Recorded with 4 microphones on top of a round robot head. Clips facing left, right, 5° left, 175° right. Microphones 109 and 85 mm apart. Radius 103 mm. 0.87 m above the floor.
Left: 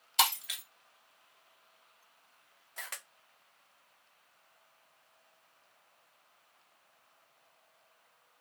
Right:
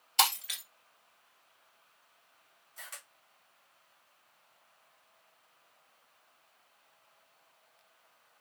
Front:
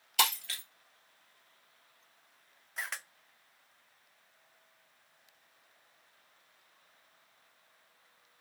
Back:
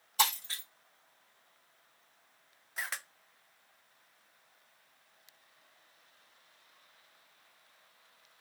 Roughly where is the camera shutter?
Left.